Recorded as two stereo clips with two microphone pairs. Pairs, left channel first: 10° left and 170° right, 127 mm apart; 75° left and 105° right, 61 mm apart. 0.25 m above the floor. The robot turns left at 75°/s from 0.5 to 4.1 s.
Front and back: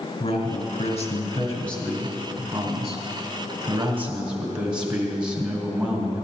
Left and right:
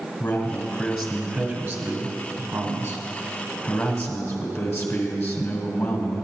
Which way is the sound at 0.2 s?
20° left.